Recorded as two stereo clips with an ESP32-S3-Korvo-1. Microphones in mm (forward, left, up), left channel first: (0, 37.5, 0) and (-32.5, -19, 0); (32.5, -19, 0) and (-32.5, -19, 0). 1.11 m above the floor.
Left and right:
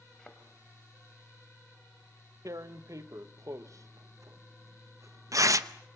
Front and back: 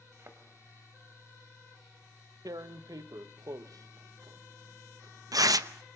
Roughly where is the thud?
Behind left.